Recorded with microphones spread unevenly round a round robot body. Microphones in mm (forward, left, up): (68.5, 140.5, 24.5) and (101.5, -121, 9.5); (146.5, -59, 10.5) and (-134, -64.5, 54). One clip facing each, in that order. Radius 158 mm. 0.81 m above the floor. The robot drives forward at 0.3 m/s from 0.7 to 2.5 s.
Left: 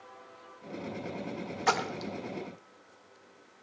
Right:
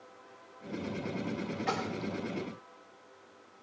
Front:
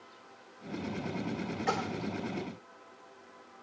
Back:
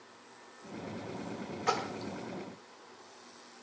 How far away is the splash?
About 0.9 m.